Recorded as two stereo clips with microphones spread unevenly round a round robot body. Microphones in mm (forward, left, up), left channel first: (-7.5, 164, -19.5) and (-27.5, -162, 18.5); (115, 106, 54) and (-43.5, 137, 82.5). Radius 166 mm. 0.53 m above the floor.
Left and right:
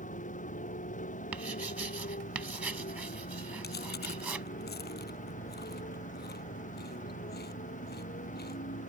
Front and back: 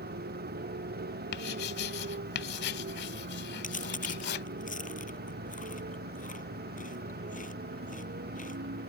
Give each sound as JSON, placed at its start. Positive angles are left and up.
{"t": 0.0, "sound": "a motorcycle", "azimuth_deg": 155}
{"t": 1.3, "sound": "writing", "azimuth_deg": -10}
{"t": 3.6, "sound": "chewing", "azimuth_deg": 25}